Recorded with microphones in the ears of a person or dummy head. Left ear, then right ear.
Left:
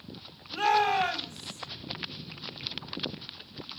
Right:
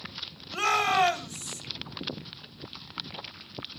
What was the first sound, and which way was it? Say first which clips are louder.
A shout: even; 45° right (ahead or behind).